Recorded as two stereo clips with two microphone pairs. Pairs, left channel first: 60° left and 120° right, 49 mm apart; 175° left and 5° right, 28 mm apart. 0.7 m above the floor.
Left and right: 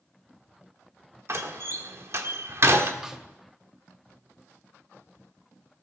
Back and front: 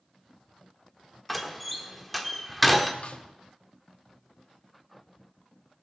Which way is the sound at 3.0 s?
165° left.